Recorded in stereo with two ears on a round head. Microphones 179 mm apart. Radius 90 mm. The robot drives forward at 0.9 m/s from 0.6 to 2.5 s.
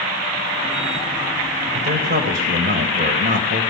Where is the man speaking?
60° right (ahead or behind), 2.5 m; by 3.6 s 50° right (ahead or behind), 3 m.